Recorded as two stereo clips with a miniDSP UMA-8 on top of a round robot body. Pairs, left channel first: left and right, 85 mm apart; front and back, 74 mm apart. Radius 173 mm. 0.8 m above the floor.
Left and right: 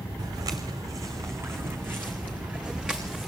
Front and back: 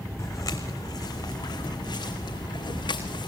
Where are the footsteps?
45° right, 3 m; by 3.3 s 5° right, 3.5 m.